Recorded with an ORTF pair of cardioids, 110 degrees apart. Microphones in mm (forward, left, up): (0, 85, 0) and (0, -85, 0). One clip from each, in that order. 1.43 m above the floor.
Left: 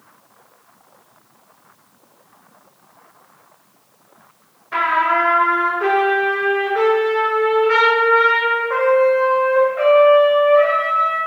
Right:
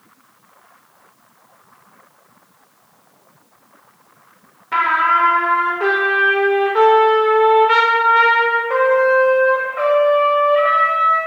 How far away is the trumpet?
About 0.9 m.